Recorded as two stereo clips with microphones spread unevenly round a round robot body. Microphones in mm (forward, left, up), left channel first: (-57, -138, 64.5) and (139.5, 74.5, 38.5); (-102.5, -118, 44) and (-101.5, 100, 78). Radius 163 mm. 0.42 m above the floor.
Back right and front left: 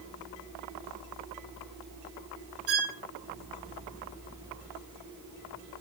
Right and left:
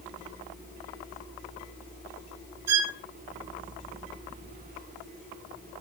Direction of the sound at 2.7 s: 90° left.